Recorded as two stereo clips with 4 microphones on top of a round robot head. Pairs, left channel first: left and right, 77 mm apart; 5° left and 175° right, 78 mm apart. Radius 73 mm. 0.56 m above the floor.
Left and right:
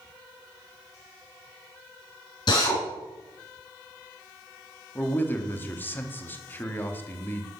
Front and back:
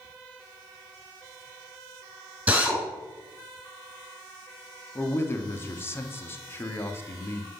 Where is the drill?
115° left, 4 m.